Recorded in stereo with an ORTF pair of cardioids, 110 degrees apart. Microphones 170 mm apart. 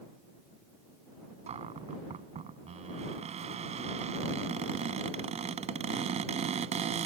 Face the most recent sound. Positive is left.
turn(degrees=-40)